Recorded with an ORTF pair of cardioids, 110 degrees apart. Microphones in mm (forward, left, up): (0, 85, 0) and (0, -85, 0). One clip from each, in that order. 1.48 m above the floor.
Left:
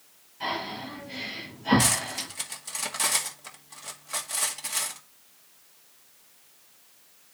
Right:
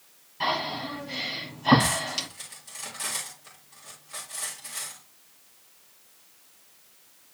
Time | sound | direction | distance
0.4 | breathing | 45° right | 6 m
1.8 | cutlery clinking | 55° left | 1.8 m